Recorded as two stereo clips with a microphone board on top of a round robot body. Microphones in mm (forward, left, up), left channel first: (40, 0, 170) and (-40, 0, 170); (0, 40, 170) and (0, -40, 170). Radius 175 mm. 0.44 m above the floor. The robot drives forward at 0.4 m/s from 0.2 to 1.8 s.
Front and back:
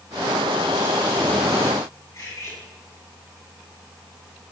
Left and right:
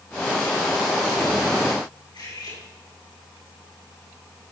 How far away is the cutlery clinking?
About 5.5 m.